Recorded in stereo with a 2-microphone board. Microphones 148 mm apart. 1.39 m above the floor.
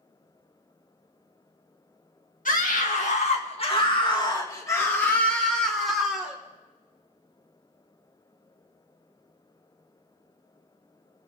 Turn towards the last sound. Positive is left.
turn(degrees=-5)  # may be behind; listen again after turning